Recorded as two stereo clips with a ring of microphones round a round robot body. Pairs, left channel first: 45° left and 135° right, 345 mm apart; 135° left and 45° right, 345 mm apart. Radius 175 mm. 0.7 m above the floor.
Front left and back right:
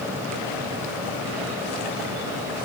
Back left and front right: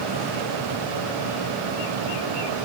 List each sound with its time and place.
Only background noise.